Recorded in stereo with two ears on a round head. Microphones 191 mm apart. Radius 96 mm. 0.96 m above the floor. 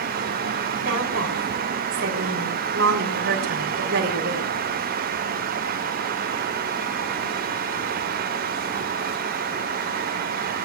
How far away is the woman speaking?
About 6 m.